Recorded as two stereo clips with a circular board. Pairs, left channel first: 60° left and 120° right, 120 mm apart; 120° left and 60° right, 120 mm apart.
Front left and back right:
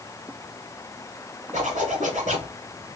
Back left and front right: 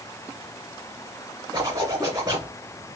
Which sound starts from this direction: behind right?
A zipper, at 1.5 s.